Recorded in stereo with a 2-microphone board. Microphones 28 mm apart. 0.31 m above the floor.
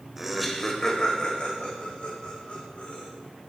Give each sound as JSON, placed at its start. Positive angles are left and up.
{"t": 0.2, "sound": "laughter", "side_deg": -10, "distance_m": 1.0}